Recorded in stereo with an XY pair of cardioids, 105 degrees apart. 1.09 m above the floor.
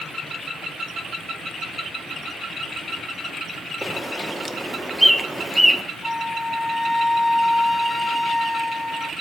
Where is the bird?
5° right, 1.1 m.